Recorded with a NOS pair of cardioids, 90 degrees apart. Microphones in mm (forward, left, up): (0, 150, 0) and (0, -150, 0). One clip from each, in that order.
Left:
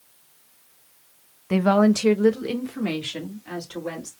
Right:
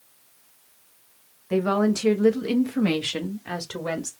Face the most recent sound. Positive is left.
turn(degrees=-55)